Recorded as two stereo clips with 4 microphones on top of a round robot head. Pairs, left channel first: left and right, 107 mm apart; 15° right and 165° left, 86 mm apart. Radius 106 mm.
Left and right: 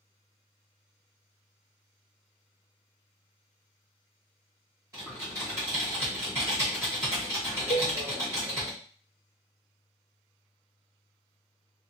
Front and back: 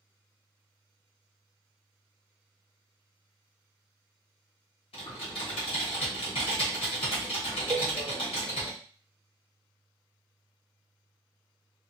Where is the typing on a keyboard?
25° right, 1.2 m.